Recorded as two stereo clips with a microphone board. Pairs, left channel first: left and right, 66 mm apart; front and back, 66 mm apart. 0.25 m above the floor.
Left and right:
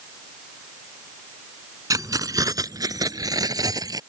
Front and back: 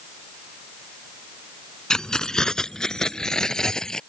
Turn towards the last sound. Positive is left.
turn(degrees=-80)